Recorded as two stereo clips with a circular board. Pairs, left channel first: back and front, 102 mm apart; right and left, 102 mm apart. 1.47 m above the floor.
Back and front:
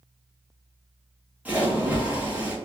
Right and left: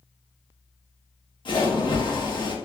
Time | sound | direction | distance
1.4 | a splash | 70° right | 1.0 m